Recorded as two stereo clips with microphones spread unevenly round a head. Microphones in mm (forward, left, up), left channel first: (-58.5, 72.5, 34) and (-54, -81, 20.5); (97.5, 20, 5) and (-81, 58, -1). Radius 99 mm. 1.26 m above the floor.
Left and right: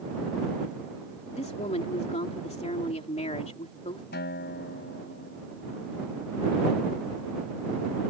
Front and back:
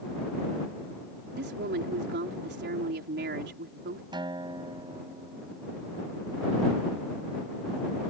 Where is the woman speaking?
140° left.